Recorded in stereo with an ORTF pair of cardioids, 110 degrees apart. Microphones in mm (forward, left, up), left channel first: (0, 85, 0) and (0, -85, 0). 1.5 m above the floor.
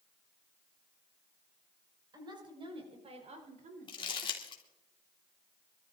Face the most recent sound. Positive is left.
turn(degrees=30)